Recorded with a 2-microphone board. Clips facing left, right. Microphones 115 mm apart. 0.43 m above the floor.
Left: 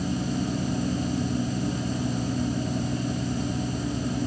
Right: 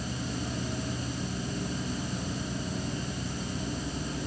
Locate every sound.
Only background noise.